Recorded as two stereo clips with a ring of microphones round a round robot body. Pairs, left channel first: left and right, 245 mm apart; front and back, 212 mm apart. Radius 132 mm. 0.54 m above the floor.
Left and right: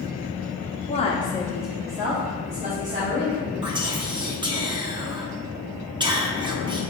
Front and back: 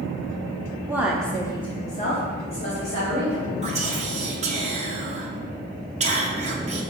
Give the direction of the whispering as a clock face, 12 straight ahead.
5 o'clock.